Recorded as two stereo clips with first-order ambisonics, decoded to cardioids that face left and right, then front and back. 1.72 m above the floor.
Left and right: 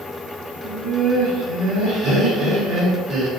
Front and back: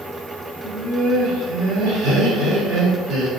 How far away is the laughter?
About 1.4 m.